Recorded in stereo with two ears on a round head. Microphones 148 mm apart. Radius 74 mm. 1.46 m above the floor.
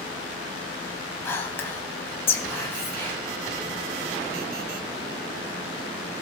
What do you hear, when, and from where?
1.2 s whispering: 15° left (ahead or behind), 1.6 m